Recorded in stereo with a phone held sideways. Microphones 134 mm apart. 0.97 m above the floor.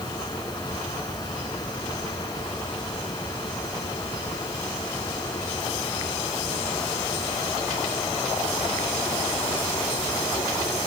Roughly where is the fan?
Left.